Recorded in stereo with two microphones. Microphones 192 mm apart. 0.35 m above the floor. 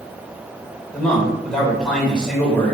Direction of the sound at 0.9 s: 5° left (ahead or behind).